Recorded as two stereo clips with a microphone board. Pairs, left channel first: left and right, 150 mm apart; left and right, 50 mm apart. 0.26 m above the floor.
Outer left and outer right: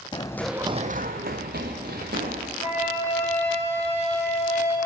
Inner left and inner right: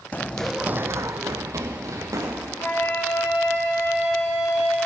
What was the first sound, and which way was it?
Running footsteps, 30° left (ahead or behind).